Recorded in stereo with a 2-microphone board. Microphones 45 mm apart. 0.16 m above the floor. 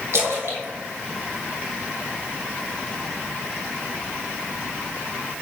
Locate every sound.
0.1 s a splash: 65° right (ahead or behind), 2.0 m